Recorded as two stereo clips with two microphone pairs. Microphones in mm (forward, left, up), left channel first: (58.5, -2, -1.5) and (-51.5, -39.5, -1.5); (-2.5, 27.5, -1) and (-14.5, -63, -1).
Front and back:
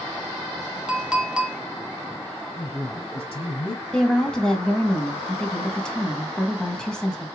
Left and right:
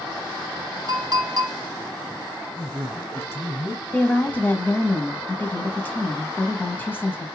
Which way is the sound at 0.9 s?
80° right.